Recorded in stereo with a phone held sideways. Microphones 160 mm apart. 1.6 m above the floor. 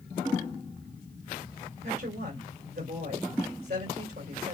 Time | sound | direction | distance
1.8 | a woman speaking | 85° right | 3 m